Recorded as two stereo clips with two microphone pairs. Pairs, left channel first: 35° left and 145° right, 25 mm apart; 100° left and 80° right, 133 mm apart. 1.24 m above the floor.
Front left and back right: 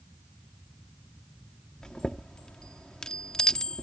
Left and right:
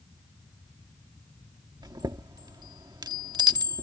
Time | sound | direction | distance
1.8 | a chime | 25° right | ?